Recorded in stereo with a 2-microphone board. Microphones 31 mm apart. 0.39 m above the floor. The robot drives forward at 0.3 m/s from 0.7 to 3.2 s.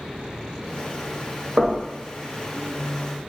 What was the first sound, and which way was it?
Knocking, 45° right (ahead or behind).